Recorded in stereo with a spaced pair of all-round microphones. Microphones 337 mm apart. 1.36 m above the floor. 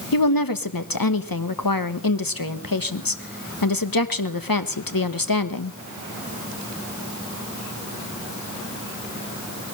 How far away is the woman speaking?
About 1.3 m.